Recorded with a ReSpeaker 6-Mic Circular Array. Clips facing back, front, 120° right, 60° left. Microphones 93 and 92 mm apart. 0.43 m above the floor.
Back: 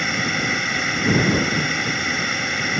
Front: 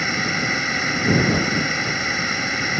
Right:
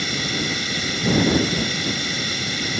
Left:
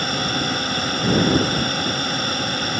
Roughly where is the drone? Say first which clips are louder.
Even, left 3 dB; left.